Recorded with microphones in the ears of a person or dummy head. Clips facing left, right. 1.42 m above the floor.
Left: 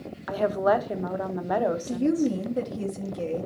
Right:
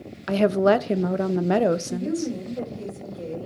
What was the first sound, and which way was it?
A woman speaking, 35° right (ahead or behind).